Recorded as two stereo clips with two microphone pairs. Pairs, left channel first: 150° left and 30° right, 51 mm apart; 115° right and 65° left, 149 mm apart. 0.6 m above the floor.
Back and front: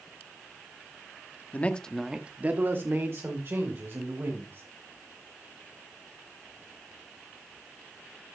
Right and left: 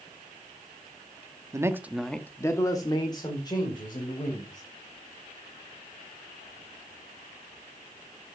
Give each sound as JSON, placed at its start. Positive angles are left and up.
{"t": 1.5, "sound": "a man speaking", "azimuth_deg": 120, "distance_m": 1.0}